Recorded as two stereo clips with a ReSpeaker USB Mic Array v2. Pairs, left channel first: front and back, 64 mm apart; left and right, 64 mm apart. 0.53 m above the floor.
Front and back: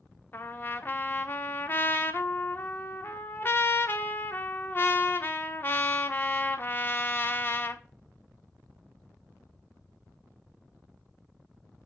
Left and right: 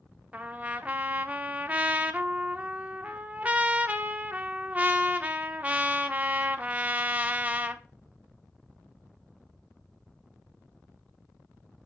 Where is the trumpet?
35° right, 0.7 m.